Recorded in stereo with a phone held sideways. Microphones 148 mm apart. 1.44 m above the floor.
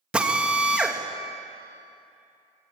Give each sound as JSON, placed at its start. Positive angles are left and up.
{"t": 0.1, "sound": "a drill", "side_deg": -5, "distance_m": 2.5}